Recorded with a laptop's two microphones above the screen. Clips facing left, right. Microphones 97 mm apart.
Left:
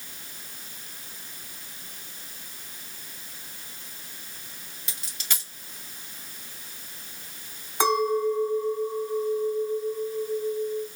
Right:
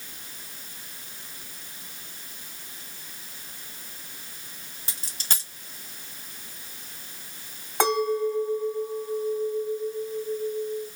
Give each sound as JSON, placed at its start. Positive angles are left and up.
{"t": 4.9, "sound": "a dropped coin", "side_deg": -35, "distance_m": 2.5}
{"t": 7.8, "sound": "a clink", "side_deg": -65, "distance_m": 3.5}